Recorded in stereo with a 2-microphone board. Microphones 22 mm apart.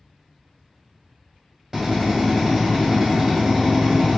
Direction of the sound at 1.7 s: 15° right (ahead or behind).